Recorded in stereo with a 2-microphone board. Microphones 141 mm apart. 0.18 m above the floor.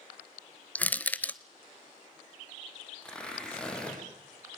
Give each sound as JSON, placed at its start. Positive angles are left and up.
{"t": 0.8, "sound": "crushing", "side_deg": 10, "distance_m": 0.7}
{"t": 3.0, "sound": "tearing paper", "side_deg": 5, "distance_m": 9.0}